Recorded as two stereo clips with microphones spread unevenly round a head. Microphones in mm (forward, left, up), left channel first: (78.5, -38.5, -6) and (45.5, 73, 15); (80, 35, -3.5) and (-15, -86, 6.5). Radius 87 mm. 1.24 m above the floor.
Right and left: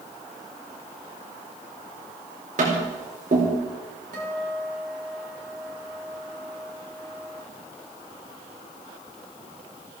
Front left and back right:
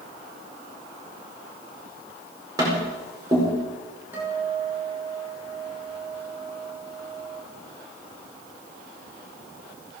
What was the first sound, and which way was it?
Tapping, 160° left.